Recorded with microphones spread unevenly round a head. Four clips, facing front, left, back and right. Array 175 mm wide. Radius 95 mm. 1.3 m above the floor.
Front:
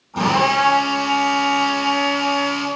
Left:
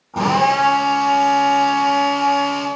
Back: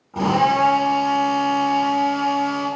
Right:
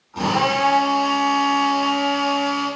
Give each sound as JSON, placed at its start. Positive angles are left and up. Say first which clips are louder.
{"t": 0.1, "sound": "a drill", "louder": "left 4 dB, even", "azimuth_deg": 115, "distance_m": 5.0}